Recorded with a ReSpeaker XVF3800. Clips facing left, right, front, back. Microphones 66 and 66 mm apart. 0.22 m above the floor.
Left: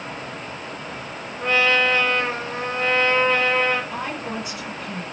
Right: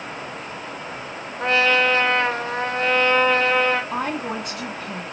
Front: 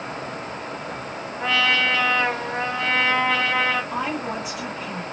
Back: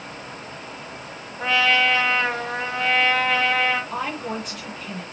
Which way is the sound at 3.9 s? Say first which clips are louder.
Right 3 dB, front 2 dB; 80° right.